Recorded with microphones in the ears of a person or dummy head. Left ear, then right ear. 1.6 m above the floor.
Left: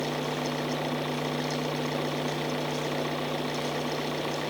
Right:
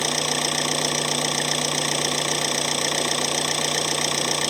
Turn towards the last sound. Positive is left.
turn(degrees=-75)  # may be behind; listen again after turning